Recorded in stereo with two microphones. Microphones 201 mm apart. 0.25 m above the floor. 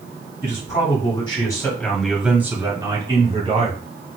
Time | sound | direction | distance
0.4 | a man speaking | 40° left (ahead or behind) | 1.5 m